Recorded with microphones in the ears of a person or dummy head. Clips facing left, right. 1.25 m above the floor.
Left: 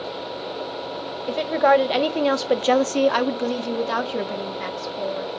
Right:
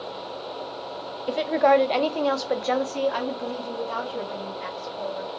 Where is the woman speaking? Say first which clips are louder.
Left 1 dB; 5° right (ahead or behind), 0.9 m; by 5.3 s 60° left (ahead or behind), 1.6 m.